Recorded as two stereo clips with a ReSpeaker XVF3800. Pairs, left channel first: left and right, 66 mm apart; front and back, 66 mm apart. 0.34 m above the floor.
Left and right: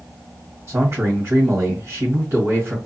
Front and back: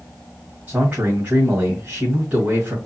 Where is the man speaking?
125° right, 2.5 m.